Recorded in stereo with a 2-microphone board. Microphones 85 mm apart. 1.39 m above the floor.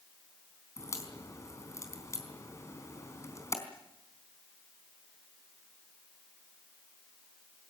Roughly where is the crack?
Left.